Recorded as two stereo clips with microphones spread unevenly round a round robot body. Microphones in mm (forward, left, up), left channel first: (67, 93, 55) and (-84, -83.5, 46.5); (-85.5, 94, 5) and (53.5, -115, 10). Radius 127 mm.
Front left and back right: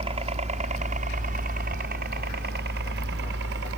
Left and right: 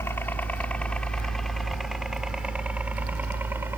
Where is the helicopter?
165° right; by 3.8 s 135° right.